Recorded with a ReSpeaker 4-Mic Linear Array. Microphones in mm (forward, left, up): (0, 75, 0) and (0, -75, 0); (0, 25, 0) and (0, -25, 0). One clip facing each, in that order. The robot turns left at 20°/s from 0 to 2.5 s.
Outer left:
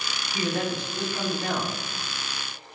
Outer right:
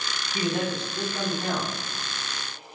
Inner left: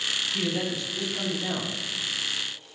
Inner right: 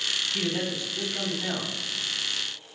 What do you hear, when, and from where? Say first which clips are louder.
0.3 s a man speaking: outer right 1 dB, inner left 1 dB; 20° right (ahead or behind), 0.9 m; by 1.8 s 30° right (ahead or behind), 0.9 m